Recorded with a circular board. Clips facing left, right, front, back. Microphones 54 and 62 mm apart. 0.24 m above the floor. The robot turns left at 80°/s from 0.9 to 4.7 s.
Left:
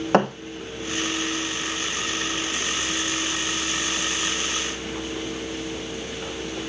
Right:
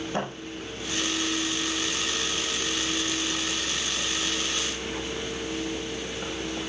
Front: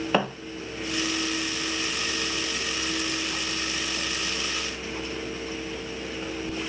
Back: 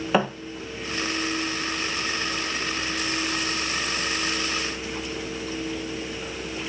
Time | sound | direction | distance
0.1 | a thud | 90° left | 1.5 m